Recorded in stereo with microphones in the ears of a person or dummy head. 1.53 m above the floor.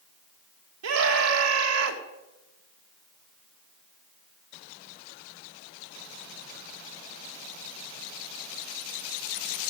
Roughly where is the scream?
Right.